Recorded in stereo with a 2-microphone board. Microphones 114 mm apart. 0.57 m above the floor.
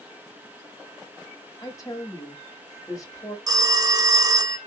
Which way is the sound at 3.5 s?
35° right (ahead or behind).